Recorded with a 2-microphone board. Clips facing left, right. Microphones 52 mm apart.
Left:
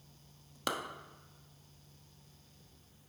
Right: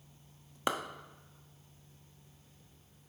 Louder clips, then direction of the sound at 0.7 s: Right 3 dB; 25° right (ahead or behind).